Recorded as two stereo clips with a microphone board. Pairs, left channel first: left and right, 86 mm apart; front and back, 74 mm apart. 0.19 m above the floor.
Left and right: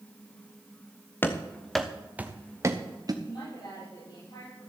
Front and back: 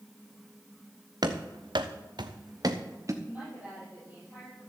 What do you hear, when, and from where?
1.2 s running footsteps: 155° left, 1.4 m; by 3.1 s 135° right, 1.9 m
3.2 s a woman speaking: 110° left, 6.5 m